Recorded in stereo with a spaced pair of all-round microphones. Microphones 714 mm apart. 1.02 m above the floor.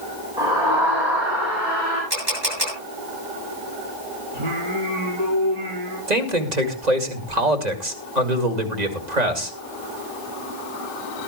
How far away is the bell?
I don't hear a bell.